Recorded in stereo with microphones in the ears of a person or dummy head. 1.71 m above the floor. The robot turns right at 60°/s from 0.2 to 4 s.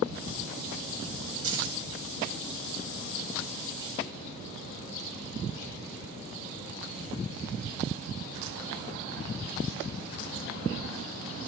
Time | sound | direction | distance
1.4 | keys jangling | 75° right (ahead or behind) | 4 m